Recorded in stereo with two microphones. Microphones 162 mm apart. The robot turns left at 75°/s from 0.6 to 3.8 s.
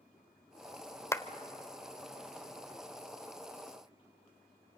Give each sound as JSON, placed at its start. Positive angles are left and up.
{"t": 1.1, "sound": "a clap", "side_deg": 15, "distance_m": 0.9}